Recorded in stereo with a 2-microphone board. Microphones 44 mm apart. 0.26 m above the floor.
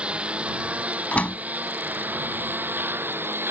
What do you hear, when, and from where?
0.0 s a lawn mower: 25° right (ahead or behind); by 3.5 s 50° right (ahead or behind)
1.1 s a door slam: 30° left (ahead or behind)